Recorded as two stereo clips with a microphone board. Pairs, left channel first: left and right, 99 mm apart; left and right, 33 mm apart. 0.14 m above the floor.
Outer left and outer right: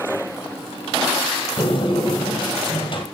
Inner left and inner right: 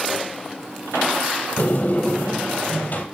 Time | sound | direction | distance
1.6 | a sliding door | 55° left (ahead or behind) | 3.5 m